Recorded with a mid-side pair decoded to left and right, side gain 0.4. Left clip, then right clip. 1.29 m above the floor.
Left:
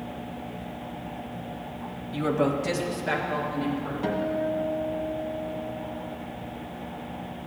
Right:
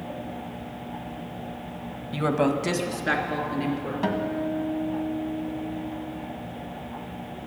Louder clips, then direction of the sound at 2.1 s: Right 1 dB; 45° right.